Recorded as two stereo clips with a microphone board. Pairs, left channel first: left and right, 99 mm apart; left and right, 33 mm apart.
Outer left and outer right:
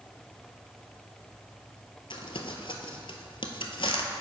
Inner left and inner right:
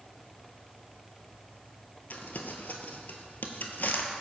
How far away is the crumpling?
About 0.7 m.